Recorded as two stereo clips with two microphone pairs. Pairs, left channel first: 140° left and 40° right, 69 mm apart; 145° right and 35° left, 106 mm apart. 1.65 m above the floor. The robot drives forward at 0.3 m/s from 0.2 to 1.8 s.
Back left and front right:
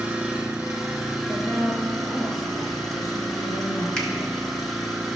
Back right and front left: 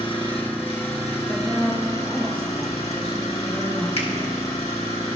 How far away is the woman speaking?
About 3 m.